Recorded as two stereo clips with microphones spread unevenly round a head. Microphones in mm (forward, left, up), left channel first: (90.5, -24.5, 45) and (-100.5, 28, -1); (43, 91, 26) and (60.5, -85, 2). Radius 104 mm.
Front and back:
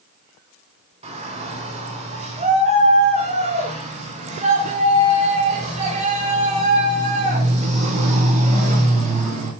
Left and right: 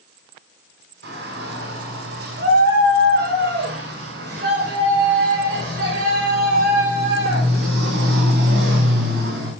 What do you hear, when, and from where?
1.0 s a shout: 135° right, 6.5 m